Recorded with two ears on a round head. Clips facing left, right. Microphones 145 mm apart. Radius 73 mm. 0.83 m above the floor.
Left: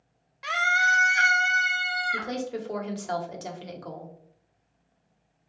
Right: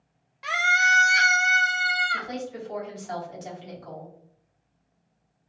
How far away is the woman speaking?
About 1.5 m.